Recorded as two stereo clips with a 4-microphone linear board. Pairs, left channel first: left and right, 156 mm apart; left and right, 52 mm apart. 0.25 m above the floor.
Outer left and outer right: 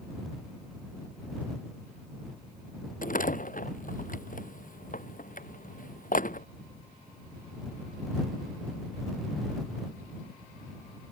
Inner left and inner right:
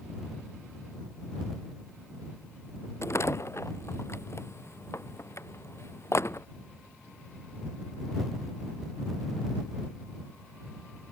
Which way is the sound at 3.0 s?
60° left (ahead or behind).